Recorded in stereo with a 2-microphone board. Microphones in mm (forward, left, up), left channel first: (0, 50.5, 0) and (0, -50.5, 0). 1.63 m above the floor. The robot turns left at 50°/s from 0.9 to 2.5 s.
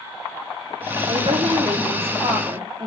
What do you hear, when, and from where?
1.1 s a woman speaking: 65° right, 5 m; by 2.9 s 140° right, 5 m